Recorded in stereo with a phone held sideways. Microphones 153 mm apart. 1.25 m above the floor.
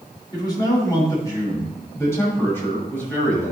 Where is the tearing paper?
I don't hear tearing paper.